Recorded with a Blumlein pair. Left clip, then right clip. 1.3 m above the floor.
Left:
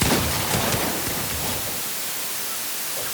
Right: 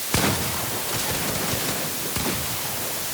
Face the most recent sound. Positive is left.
No sound to turn to.